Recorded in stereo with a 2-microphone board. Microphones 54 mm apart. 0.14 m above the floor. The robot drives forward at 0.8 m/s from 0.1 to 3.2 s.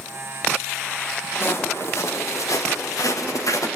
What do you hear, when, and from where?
1.4 s footsteps: 45° left (ahead or behind), 4 m; by 3.7 s 75° left (ahead or behind), 3.5 m